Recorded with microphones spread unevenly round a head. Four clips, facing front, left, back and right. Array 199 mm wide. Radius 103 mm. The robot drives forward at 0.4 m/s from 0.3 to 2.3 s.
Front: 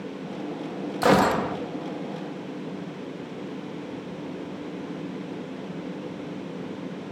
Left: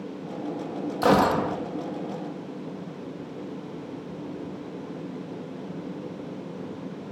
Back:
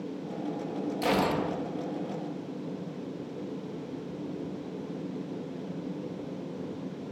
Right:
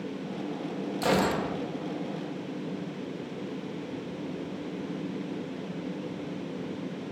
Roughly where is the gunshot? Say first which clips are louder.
Left 6 dB, front 8 dB; ahead left.